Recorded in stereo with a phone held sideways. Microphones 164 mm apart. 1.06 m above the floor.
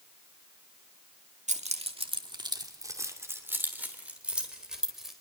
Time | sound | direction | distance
1.5 | keys jangling | 45° right (ahead or behind) | 1.8 m